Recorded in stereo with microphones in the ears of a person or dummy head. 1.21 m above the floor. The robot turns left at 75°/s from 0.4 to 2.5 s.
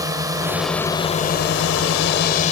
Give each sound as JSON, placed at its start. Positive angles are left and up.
{"t": 0.0, "sound": "a drone", "azimuth_deg": -155}